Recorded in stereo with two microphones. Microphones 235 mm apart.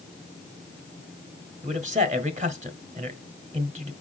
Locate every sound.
1.6 s a man speaking: 30° right (ahead or behind), 1.4 m